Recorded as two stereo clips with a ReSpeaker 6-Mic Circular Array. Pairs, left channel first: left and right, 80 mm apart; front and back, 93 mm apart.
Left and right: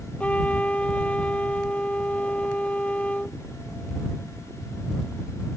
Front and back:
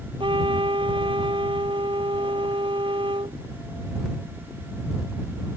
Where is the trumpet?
165° left.